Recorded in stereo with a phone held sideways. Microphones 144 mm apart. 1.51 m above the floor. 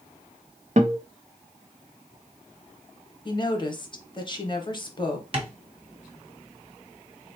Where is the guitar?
55° right (ahead or behind), 0.6 m.